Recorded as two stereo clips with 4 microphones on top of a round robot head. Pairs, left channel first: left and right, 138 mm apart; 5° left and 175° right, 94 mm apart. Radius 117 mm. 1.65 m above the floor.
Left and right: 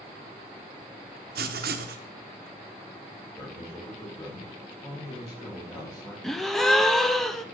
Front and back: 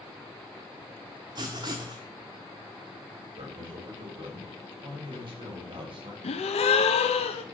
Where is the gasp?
Straight ahead, 0.7 m.